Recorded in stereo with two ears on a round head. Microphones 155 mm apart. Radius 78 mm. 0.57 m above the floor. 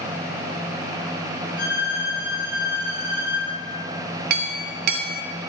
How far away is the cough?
I don't hear a cough.